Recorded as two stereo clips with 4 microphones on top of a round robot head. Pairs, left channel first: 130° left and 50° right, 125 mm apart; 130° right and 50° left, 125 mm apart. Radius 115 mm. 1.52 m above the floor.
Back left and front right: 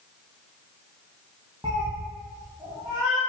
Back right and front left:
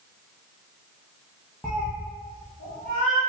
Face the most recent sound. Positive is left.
turn(degrees=-120)